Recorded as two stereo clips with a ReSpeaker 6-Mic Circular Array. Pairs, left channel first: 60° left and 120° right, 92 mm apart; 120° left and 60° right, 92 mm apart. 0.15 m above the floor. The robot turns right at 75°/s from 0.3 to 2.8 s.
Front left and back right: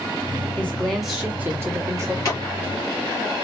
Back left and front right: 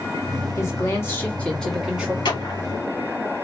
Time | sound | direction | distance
0.6 | a woman speaking | 115° left | 1.4 m
2.2 | a clap | 110° left | 2.5 m